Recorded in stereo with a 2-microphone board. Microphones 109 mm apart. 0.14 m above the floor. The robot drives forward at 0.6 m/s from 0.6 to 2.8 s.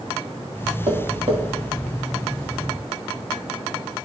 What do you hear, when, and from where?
0.9 s tapping: 75° right (ahead or behind), 3.5 m; by 1.4 s 70° right (ahead or behind), 3.5 m